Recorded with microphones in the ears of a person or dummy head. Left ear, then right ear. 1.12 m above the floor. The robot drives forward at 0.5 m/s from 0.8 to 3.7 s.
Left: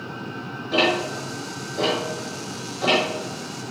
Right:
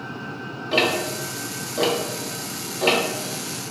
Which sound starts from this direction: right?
Ticking, at 0.7 s.